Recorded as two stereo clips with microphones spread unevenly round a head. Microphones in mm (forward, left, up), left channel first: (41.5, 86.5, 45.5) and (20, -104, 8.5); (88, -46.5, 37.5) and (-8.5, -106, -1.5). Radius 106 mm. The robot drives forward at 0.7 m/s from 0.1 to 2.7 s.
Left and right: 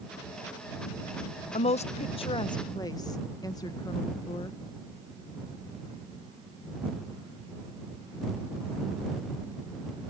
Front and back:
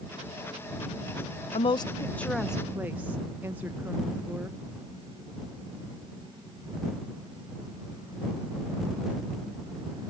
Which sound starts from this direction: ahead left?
A woman speaking, at 1.5 s.